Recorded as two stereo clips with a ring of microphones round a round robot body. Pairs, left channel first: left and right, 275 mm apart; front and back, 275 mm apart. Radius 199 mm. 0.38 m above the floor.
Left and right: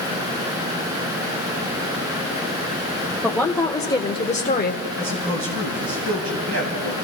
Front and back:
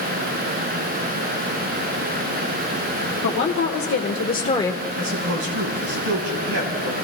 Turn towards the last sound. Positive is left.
turn(degrees=-135)